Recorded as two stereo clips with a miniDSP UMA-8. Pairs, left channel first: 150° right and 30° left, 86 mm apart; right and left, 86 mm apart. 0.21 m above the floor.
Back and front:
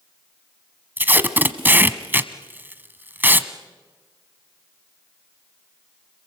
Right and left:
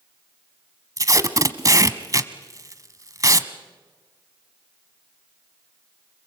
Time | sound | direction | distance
1.0 | tape being pulled | 85° left | 1.0 m